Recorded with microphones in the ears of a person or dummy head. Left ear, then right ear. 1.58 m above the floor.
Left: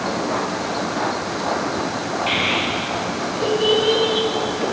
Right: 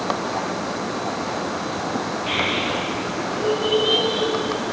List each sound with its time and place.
2.3 s a child speaking: 30° left (ahead or behind), 1.8 m; by 4.7 s 60° left (ahead or behind), 2.5 m